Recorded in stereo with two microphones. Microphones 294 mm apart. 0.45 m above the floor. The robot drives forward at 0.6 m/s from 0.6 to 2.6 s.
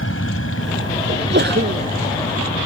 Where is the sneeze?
35° right (ahead or behind).